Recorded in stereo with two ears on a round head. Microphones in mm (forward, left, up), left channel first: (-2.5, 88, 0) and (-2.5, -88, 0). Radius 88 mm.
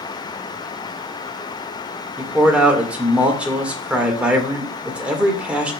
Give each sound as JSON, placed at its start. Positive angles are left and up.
{"t": 2.2, "sound": "a man speaking", "side_deg": -5, "distance_m": 1.9}